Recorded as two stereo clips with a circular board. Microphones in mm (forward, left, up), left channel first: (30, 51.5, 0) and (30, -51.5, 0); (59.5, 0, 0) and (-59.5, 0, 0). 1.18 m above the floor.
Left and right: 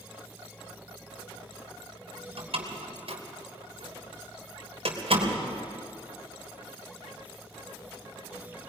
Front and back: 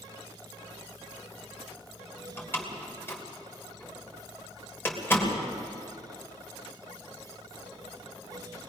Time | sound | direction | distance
2.4 | a door slam | 70° right | 3 m